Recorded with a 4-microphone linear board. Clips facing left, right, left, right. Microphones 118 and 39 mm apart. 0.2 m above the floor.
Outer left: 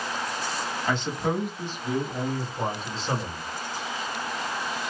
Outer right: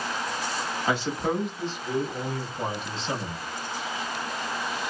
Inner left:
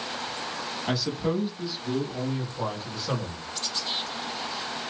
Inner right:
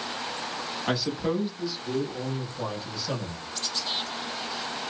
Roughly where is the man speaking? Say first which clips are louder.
Outer right 1 dB, even; centre.